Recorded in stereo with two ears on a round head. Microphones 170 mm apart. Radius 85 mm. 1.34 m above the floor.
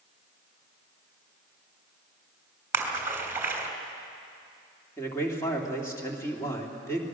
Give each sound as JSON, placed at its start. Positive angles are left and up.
{"t": 2.7, "sound": "a splash", "side_deg": -15, "distance_m": 2.5}
{"t": 5.0, "sound": "a man speaking", "side_deg": 15, "distance_m": 3.0}